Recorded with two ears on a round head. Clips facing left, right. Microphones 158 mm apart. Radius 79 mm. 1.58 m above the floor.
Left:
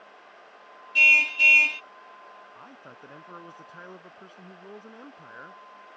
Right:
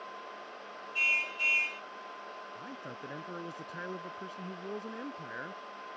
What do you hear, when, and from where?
0.9 s a car horn: 85° left
2.5 s a man speaking: 20° right (ahead or behind)